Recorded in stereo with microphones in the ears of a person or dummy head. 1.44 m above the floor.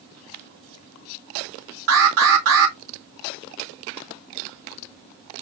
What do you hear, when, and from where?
1.9 s an alarm: 70° right (ahead or behind), 2.5 m